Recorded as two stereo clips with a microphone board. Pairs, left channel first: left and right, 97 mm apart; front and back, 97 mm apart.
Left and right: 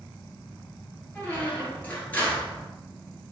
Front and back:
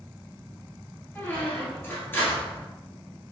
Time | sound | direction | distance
1.1 | a squeak | 35° left | 1.3 m